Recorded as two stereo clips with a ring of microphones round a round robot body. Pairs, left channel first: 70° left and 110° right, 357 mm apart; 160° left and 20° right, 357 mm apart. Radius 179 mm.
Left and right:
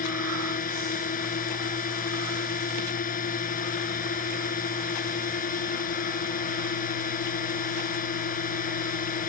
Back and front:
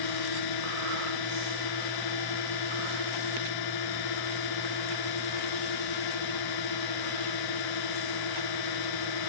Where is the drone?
135° left.